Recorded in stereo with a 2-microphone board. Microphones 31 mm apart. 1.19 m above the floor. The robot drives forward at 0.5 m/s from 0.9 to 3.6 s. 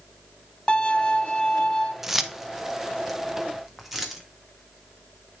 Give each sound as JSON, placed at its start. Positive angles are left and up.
{"t": 0.7, "sound": "a violin", "side_deg": 35, "distance_m": 0.8}
{"t": 2.0, "sound": "keys jangling", "side_deg": -10, "distance_m": 0.5}